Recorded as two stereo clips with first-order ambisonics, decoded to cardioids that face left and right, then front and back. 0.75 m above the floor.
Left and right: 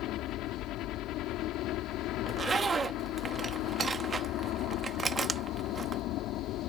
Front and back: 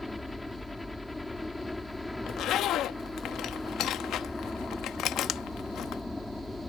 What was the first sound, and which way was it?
A helicopter, 85° left.